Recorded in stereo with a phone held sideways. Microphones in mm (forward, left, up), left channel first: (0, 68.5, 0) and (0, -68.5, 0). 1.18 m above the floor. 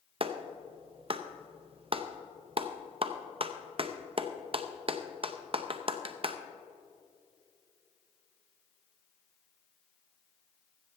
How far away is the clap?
About 0.7 m.